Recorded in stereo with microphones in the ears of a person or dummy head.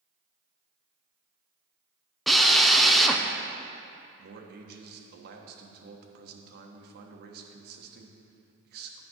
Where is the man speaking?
60° right (ahead or behind), 1.2 m.